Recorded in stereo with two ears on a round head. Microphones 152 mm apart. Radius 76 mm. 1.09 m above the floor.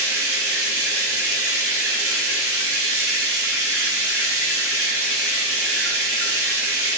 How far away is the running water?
About 5 m.